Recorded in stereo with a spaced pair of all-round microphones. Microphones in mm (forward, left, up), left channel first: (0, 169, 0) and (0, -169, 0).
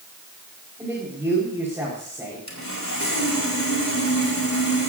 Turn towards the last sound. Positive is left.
turn(degrees=50)  # may be behind; listen again after turning